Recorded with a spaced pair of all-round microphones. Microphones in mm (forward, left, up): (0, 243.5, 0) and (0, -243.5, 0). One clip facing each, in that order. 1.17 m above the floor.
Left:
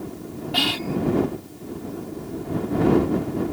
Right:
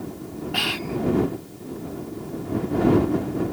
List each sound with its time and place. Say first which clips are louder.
0.5 s whispering: left 4 dB; 55° left (ahead or behind)